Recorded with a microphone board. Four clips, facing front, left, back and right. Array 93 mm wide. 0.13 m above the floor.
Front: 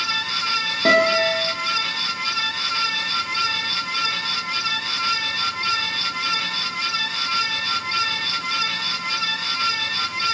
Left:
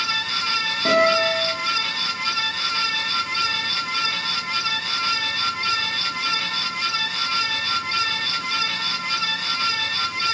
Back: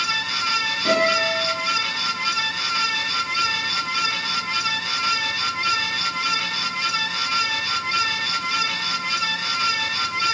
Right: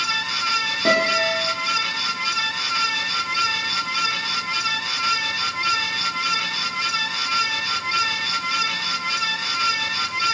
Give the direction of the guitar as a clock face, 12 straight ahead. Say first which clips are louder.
Left 2 dB, front 3 dB; 1 o'clock.